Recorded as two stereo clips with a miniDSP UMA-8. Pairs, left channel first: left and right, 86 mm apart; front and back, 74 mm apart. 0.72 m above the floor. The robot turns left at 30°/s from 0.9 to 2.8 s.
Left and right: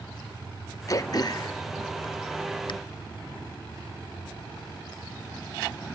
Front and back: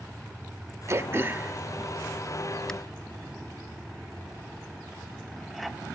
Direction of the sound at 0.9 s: 135° left.